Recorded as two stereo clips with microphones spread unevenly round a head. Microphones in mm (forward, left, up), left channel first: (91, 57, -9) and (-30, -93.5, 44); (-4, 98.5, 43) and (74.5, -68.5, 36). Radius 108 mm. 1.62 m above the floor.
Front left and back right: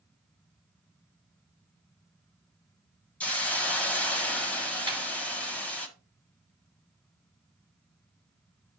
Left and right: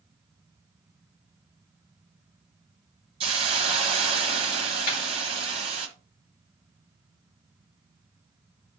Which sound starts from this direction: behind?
A snare drum, at 4.9 s.